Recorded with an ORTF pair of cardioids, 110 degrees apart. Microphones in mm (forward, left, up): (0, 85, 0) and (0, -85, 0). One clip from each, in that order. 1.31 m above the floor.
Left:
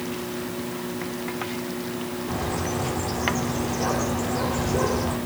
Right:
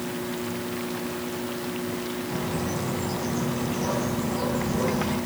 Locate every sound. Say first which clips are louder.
2.3 s a bird: left 4 dB; 65° left, 3.5 m